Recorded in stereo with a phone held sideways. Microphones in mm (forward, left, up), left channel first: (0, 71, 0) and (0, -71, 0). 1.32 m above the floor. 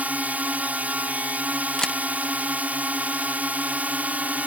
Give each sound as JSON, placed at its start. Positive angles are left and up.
{"t": 0.0, "sound": "a drone", "side_deg": -10}
{"t": 1.8, "sound": "a camera shutter", "side_deg": 5}